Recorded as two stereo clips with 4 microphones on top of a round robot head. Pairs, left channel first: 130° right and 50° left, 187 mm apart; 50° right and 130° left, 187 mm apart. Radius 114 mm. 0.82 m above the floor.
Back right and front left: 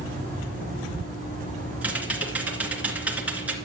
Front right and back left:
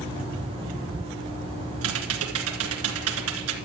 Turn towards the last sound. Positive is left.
turn(degrees=130)